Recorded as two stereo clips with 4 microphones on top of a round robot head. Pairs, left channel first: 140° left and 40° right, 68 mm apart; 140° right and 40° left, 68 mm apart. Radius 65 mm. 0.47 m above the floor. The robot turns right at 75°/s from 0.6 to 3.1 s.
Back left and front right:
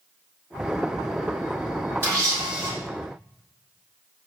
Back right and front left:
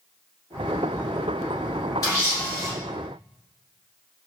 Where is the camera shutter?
100° right, 1.6 m; by 2.7 s 50° right, 1.6 m.